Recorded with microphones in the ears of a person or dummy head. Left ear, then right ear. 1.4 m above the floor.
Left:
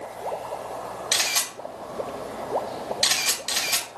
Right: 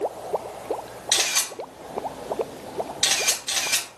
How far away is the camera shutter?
About 1.1 m.